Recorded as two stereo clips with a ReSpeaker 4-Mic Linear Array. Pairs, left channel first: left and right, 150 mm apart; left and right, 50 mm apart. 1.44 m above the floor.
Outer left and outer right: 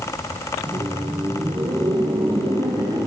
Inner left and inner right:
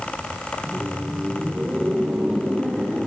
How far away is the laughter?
About 0.9 m.